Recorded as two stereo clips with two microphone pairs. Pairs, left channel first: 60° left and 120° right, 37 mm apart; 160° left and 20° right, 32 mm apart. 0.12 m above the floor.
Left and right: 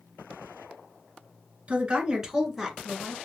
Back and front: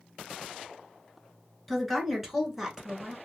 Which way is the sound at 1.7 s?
115° right.